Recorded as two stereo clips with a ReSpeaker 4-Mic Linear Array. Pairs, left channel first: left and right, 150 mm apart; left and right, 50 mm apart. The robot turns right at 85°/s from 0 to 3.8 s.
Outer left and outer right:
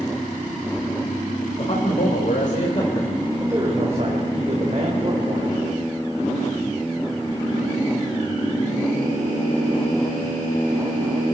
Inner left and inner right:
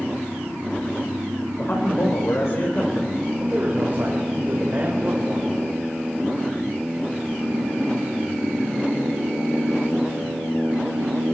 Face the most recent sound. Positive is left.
turn(degrees=-130)